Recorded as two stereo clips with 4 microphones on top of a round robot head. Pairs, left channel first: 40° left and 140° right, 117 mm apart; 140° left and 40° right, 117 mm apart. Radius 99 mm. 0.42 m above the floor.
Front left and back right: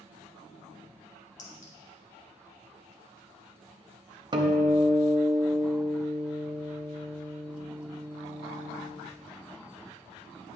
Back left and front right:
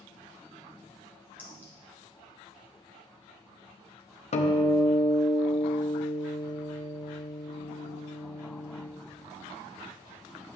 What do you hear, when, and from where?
1.4 s a clink: 35° left, 2.5 m
4.3 s a guitar: 165° left, 0.9 m